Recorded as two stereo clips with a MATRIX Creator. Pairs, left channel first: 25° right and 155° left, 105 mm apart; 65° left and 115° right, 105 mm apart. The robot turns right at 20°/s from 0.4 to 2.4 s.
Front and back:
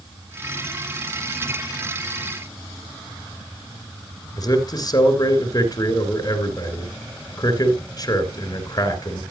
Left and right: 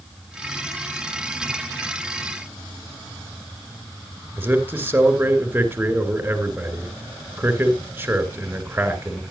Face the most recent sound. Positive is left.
turn(degrees=-50)